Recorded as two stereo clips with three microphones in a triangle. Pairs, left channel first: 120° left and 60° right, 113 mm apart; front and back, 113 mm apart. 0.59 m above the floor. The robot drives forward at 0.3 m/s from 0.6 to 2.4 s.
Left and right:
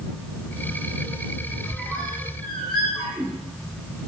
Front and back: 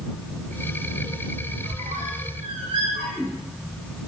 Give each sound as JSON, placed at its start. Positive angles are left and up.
{"t": 1.6, "sound": "a squeak", "azimuth_deg": -150, "distance_m": 1.7}